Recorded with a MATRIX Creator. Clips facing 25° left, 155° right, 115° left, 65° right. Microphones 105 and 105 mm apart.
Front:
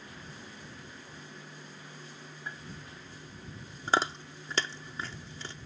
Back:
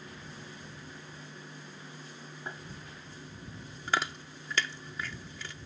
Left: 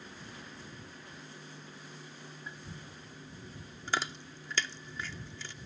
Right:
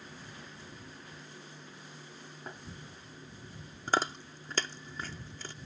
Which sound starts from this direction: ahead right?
Chewing, at 3.9 s.